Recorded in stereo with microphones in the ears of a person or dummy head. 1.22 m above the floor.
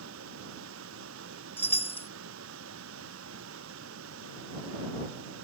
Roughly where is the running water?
Right.